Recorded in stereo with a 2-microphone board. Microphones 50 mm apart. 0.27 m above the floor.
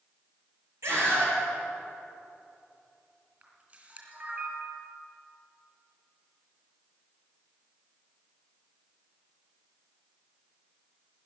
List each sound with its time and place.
0.8 s a scream: 70° right (ahead or behind), 6.5 m
3.4 s a camera shutter: 30° right (ahead or behind), 3.5 m